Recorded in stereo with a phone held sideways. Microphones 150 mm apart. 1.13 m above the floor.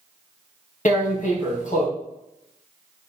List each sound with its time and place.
0.8 s tearing paper: 60° left (ahead or behind), 3 m